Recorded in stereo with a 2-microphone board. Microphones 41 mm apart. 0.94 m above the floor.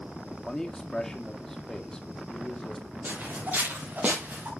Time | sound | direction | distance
0.3 | a man speaking | 10° left (ahead or behind) | 1.7 m
3.0 | footsteps | 45° right (ahead or behind) | 6 m